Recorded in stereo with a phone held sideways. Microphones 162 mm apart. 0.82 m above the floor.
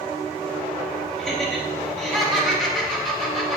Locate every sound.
1.2 s laughter: centre (ahead or behind), 1.1 m